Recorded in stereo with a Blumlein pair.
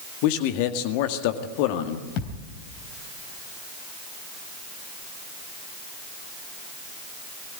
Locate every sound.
0.2 s a man speaking: 45° left, 1.9 m
2.2 s a thud: 40° left, 3 m